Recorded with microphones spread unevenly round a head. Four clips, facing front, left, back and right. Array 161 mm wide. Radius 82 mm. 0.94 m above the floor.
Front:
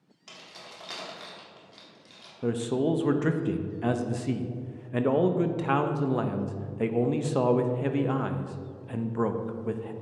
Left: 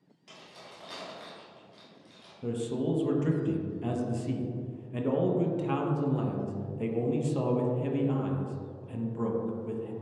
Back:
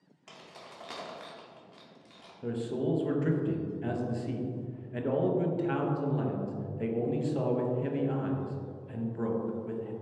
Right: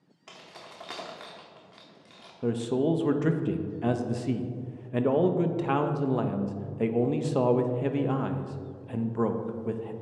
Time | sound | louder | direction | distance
0.3 | keys jangling | right 3 dB, front 1 dB | 100° right | 1.5 m
2.4 | a man speaking | right 5 dB, front 5 dB | 60° right | 0.7 m